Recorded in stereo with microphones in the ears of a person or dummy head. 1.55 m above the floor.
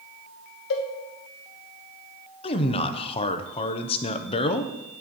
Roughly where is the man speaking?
Left.